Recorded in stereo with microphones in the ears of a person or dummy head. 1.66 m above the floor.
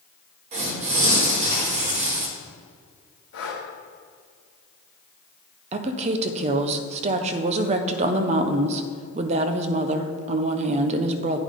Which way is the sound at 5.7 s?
35° right (ahead or behind).